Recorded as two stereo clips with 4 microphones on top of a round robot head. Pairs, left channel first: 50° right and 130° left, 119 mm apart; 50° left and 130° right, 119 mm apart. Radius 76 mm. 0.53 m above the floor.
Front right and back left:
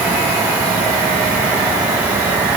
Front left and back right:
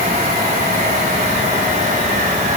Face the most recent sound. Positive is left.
No sound to turn to.